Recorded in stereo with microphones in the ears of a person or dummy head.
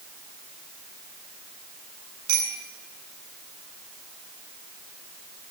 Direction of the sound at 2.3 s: 70° right (ahead or behind).